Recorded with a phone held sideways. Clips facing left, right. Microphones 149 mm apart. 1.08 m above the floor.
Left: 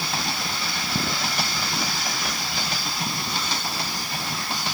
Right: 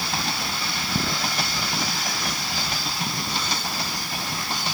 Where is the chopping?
No chopping in this recording.